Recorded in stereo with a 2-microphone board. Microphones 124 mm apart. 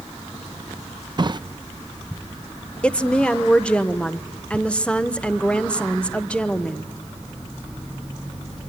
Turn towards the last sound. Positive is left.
turn(degrees=10)  # may be behind; listen again after turning